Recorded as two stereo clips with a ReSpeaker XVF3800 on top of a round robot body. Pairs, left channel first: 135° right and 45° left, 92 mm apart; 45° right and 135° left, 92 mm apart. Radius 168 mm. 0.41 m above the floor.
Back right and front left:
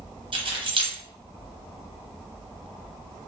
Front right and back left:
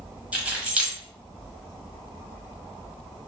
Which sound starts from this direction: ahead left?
Keys jangling, at 0.3 s.